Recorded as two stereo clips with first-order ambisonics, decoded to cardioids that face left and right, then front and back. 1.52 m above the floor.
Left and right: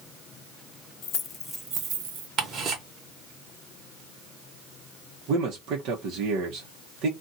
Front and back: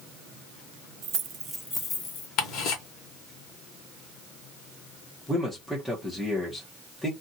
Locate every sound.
1.0 s keys jangling: 135° left, 0.8 m; by 2.3 s 55° right, 1.1 m
2.4 s ticking: 40° right, 1.2 m
5.3 s a man speaking: 90° right, 0.9 m